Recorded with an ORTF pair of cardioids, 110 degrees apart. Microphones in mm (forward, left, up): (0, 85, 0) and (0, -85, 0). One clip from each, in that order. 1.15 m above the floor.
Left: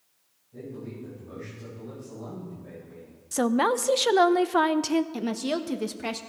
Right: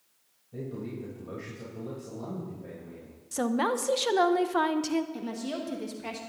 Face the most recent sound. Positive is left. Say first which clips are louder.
# left 6 dB
turn(degrees=45)